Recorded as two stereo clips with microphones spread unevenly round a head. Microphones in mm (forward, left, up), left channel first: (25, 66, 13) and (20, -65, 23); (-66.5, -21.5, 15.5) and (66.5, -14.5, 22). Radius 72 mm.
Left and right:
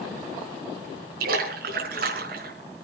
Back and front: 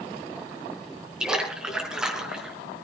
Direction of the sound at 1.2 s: 80° right.